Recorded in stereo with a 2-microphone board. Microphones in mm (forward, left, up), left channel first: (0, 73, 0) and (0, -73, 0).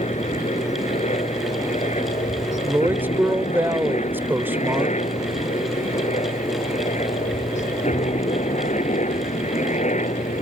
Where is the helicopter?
50° left (ahead or behind); by 10.4 s 55° left (ahead or behind).